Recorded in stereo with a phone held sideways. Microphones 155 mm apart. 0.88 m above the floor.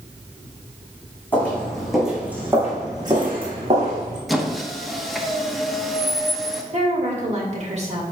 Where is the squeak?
Centre (ahead or behind), 1.0 m.